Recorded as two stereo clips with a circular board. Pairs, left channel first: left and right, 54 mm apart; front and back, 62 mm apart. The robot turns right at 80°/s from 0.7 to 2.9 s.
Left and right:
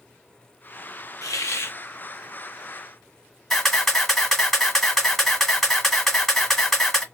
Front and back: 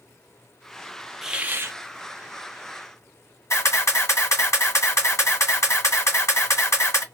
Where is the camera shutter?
5° left, 1.9 m.